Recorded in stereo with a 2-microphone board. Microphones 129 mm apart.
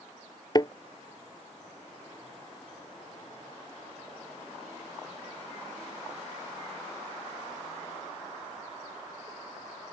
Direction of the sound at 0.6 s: 35° left (ahead or behind).